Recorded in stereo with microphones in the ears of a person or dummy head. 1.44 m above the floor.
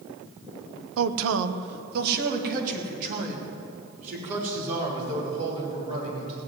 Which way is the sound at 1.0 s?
65° right (ahead or behind).